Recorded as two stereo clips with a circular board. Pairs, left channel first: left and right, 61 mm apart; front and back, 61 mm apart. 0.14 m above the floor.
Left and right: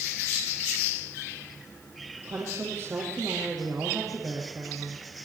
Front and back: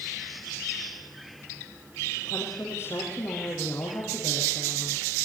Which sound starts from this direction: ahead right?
A woman speaking, at 2.2 s.